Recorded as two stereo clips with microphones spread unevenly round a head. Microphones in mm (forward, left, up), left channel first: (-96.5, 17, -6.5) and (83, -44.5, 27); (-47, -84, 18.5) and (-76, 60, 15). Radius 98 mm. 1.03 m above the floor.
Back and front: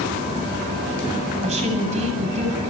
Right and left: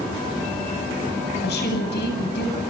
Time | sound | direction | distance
1.4 | a woman speaking | 75° right | 8.5 m